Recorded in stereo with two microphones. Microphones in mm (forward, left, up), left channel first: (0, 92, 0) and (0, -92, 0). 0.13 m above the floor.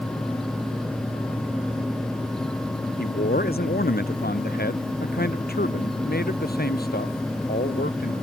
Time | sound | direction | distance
3.0 | a man speaking | 55° left (ahead or behind) | ?